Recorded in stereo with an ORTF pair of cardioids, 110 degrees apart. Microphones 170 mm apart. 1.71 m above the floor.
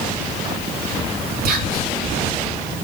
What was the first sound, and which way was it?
Whispering, 60° right.